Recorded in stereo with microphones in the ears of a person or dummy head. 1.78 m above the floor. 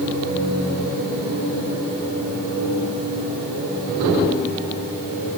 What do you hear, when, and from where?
Only background noise.